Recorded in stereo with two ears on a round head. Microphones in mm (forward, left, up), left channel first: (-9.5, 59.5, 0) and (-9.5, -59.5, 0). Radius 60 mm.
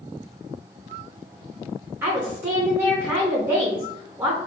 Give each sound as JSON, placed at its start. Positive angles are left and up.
{"t": 2.0, "sound": "a woman speaking", "side_deg": -15, "distance_m": 0.8}